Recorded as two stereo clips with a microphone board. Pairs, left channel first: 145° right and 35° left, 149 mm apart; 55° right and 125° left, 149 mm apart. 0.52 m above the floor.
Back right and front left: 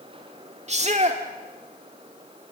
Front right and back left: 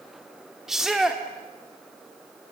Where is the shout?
40° left, 1.5 m.